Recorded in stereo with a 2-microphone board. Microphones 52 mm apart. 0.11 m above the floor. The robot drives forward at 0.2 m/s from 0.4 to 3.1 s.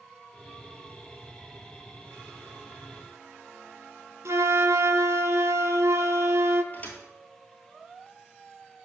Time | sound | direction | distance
4.2 | a flute | 70° right (ahead or behind) | 0.6 m
6.7 | a thud | 30° left (ahead or behind) | 1.1 m